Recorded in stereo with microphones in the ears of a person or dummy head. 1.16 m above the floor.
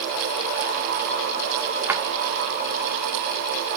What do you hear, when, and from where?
1.9 s a drawer: 15° right (ahead or behind), 1.0 m